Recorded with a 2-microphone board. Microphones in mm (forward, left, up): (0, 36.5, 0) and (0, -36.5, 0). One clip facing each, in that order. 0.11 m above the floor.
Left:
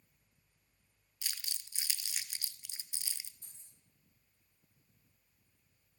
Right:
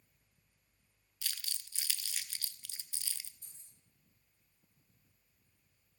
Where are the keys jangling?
50° left (ahead or behind), 6 m.